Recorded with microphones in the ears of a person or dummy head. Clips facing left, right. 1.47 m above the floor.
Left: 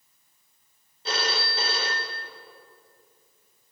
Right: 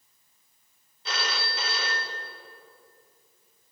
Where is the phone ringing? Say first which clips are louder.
Left 4 dB; 25° left (ahead or behind), 0.8 m.